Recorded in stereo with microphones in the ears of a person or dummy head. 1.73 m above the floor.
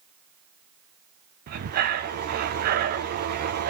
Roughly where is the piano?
I don't hear a piano.